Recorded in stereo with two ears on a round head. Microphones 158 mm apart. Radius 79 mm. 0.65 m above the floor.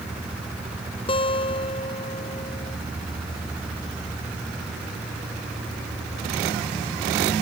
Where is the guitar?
30° left (ahead or behind).